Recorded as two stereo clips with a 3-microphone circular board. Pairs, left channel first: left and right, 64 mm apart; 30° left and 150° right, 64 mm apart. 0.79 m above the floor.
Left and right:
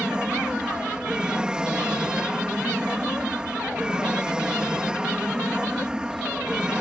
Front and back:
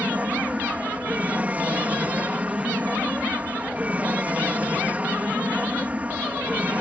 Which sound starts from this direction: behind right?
An aircraft, at 0.0 s.